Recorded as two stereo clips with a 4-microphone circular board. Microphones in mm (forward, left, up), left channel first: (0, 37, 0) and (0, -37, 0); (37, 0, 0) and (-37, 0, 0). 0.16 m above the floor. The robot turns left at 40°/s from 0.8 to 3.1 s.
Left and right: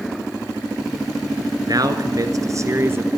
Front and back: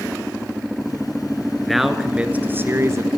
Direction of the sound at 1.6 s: 85° right.